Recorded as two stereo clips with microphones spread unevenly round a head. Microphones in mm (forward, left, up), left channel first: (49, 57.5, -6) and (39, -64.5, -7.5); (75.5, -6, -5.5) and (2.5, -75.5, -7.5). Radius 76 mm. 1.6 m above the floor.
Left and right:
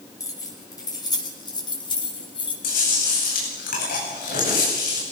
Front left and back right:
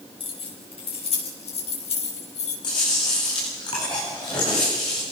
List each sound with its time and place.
0.2 s keys jangling: 25° left, 6.5 m; by 2.5 s 40° left, 6.5 m
2.6 s chewing: 105° left, 9 m